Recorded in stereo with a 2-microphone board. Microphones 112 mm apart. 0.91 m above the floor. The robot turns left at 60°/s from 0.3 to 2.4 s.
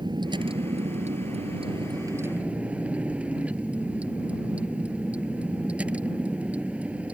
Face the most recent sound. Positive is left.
turn(degrees=-170)